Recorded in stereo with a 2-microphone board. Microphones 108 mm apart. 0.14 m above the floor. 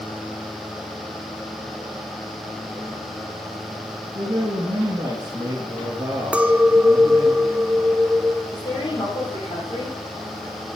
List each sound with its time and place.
4.2 s a man speaking: 25° right (ahead or behind), 2 m
6.3 s a clink: 10° right (ahead or behind), 0.7 m
8.5 s a woman speaking: 45° left (ahead or behind), 4.5 m